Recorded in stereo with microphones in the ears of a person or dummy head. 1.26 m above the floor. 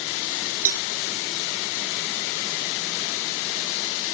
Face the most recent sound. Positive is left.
turn(degrees=-75)  # may be behind; listen again after turning